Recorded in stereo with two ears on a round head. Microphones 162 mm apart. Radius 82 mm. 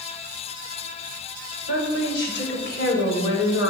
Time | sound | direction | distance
1.7 | a woman speaking | 70° left (ahead or behind) | 4 m